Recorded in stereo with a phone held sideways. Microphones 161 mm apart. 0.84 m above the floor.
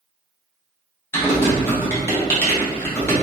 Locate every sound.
1.1 s typing on a keyboard: 15° left (ahead or behind), 0.8 m